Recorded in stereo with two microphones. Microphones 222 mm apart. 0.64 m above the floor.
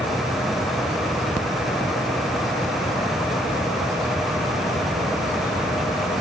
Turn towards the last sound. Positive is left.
No sound to turn to.